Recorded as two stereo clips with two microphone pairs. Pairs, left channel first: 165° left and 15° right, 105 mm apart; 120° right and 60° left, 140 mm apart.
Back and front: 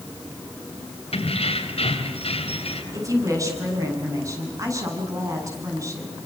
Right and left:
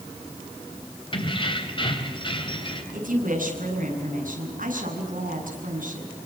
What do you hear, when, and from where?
1.1 s keys jangling: 170° right, 3.5 m
2.9 s a woman speaking: 45° left, 8 m